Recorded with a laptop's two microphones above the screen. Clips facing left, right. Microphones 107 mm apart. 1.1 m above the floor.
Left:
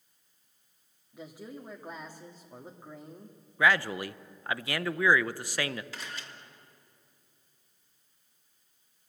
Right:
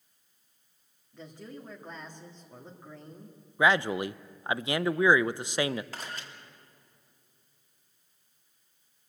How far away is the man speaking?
About 0.6 m.